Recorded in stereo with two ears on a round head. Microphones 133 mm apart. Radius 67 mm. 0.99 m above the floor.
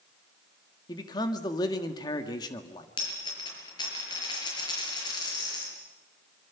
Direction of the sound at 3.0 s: 30° left (ahead or behind).